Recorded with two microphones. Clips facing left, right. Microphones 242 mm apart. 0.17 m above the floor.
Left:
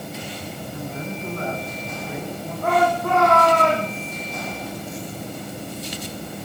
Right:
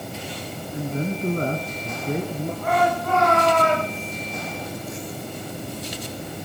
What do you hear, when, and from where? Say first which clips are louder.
0.7 s a man speaking: right 7 dB; 20° right (ahead or behind), 1.7 m; by 2.5 s 50° right (ahead or behind), 3.5 m
2.6 s a shout: left 3 dB; 55° left (ahead or behind), 9 m